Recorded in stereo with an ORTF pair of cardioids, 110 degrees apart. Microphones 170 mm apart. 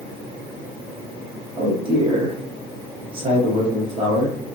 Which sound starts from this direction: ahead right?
A man speaking, at 1.6 s.